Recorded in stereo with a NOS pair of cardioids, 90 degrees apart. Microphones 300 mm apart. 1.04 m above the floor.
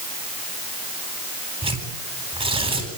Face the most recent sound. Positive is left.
turn(degrees=-20)